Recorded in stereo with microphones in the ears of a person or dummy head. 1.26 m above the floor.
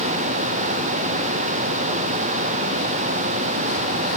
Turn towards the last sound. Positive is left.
No sound to turn to.